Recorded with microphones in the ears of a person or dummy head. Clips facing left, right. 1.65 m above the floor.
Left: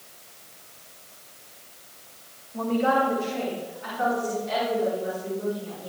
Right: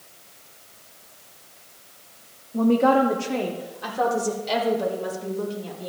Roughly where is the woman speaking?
Right.